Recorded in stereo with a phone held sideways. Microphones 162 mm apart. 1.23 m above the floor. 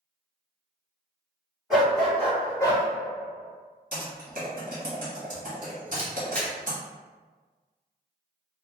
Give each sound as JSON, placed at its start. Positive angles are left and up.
{"t": 1.7, "sound": "a dog barking", "side_deg": 0, "distance_m": 1.9}
{"t": 3.9, "sound": "typing on a keyboard", "side_deg": -55, "distance_m": 1.2}
{"t": 6.0, "sound": "a camera shutter", "side_deg": 10, "distance_m": 0.8}